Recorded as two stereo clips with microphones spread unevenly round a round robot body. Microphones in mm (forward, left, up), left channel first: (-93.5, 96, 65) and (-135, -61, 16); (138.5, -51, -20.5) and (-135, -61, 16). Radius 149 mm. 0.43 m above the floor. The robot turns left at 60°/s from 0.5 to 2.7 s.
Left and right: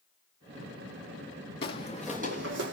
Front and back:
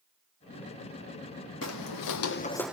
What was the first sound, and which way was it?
Footsteps, 60° left.